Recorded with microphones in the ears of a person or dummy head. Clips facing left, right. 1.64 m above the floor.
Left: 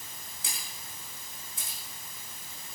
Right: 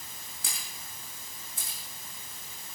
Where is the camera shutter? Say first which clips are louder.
Even; 50° right (ahead or behind), 4 m.